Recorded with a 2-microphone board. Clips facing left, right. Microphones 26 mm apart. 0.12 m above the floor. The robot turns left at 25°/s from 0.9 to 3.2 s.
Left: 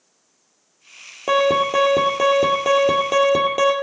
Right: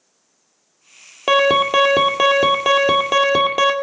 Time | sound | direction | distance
1.3 | an alarm | 105° right | 1.9 m